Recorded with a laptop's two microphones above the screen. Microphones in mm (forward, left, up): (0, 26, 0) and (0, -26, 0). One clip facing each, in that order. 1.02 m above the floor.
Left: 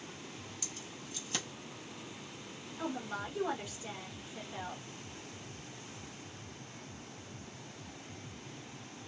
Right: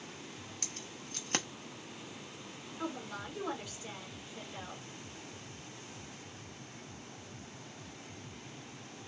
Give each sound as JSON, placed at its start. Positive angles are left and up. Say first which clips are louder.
{"t": 0.6, "sound": "keys jangling", "louder": "even", "side_deg": -60, "distance_m": 0.6}
{"t": 2.8, "sound": "a woman speaking", "louder": "left 2 dB", "side_deg": 20, "distance_m": 1.3}